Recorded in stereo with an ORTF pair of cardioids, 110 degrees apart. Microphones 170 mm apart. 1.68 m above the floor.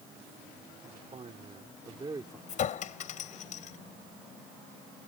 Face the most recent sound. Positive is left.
turn(degrees=50)